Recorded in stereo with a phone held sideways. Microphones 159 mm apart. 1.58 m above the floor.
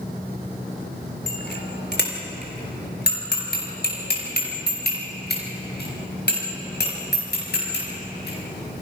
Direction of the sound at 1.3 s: 80° left.